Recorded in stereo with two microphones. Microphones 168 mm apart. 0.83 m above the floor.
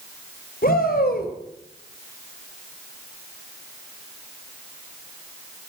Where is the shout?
65° left (ahead or behind), 3 m.